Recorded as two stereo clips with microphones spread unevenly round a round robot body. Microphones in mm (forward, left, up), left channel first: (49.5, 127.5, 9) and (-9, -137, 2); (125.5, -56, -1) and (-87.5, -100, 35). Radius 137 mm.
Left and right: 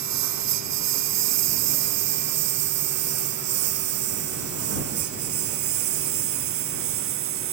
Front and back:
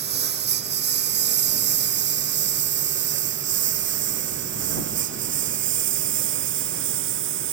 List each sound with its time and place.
0.0 s a lawn mower: 130° right; by 7.5 s 145° right